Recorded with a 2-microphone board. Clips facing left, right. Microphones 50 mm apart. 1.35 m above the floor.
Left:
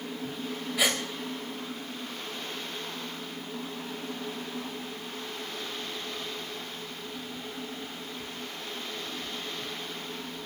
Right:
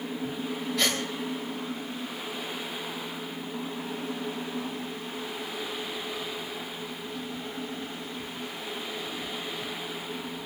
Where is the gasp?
10° left (ahead or behind), 4 m.